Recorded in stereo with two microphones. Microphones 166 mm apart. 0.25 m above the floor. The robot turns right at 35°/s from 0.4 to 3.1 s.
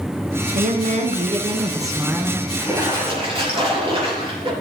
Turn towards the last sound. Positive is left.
turn(degrees=-35)  # may be behind; listen again after turning